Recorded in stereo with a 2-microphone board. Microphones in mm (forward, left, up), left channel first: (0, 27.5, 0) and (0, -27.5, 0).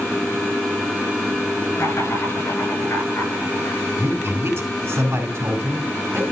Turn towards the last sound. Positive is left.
turn(degrees=-45)  # may be behind; listen again after turning